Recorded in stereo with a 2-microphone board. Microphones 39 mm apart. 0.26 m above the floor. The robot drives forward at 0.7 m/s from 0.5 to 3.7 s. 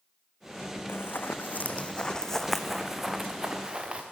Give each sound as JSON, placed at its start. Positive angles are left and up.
{"t": 0.9, "sound": "running footsteps", "side_deg": 75, "distance_m": 0.9}